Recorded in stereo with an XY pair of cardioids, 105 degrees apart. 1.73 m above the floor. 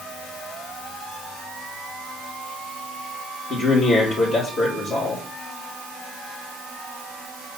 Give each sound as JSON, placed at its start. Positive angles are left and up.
{"t": 3.5, "sound": "a man speaking", "azimuth_deg": 60, "distance_m": 4.0}